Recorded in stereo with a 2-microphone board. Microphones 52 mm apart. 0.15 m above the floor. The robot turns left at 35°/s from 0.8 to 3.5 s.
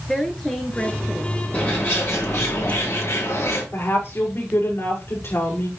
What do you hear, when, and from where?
0.1 s a woman speaking: 10° left (ahead or behind), 1.8 m; by 1.4 s 5° right (ahead or behind), 1.8 m
1.5 s a bird: 150° left, 6.5 m; by 3.6 s 80° left, 6.5 m
3.7 s a woman speaking: 60° left (ahead or behind), 7 m